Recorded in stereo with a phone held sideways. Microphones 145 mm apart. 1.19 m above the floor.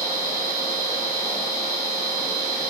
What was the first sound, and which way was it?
A machine running, 15° left (ahead or behind).